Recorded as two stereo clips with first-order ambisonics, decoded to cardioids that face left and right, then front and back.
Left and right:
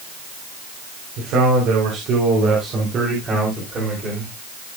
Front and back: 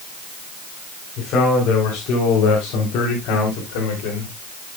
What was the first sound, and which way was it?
A man speaking, 55° right.